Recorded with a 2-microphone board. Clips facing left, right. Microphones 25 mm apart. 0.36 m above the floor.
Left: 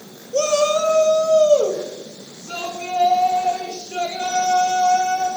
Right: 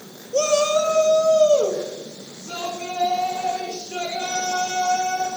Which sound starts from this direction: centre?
A shout, at 0.3 s.